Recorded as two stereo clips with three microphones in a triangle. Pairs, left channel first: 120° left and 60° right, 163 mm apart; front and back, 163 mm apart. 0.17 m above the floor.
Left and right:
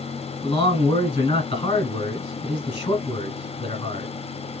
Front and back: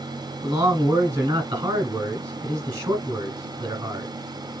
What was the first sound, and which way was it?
A man speaking, 130° left.